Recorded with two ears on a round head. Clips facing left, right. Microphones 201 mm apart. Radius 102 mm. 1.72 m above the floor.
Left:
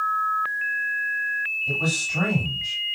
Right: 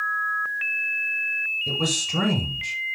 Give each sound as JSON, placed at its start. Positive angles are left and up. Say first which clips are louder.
{"t": 1.7, "sound": "a man speaking", "louder": "right 1 dB", "side_deg": -75, "distance_m": 7.5}